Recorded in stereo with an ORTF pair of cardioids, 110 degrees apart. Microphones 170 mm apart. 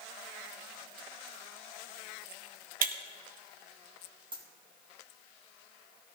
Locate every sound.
2.8 s breaking glass: 55° right, 1.6 m
4.3 s a dropped coin: 30° right, 4.5 m